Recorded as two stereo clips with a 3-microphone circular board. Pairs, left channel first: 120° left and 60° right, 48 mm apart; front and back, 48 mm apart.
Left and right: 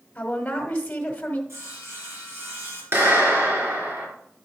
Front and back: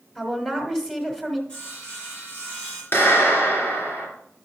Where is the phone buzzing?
I don't hear a phone buzzing.